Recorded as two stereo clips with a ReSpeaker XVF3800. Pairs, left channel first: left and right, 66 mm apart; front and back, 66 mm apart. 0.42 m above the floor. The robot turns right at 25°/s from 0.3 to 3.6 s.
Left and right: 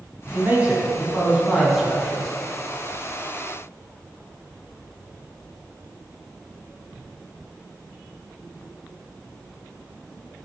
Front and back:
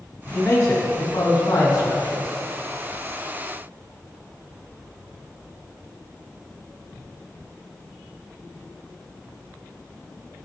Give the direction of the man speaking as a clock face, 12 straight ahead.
1 o'clock.